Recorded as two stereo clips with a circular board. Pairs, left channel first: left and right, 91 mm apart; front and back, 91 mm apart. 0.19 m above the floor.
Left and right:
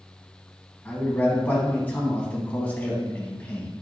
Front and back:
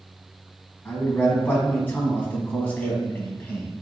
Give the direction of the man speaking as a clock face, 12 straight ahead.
11 o'clock.